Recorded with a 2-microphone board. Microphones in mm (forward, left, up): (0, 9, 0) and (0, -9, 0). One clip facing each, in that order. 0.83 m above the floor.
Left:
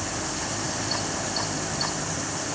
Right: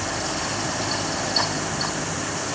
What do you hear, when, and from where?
Only background noise.